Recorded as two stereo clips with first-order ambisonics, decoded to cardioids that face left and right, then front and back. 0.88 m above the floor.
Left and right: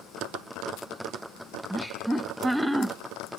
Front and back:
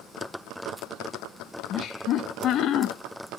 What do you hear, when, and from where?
1.7 s laughter: straight ahead, 0.7 m